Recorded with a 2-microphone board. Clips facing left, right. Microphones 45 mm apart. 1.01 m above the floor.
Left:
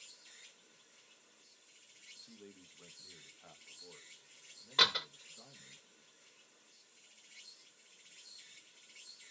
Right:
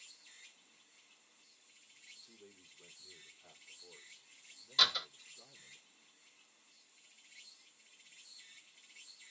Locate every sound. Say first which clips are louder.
0.0 s an insect: even; 60° left (ahead or behind), 1.2 m
2.2 s a man speaking: left 4 dB; 45° left (ahead or behind), 0.8 m
4.8 s a door slam: left 2 dB; 35° left (ahead or behind), 0.9 m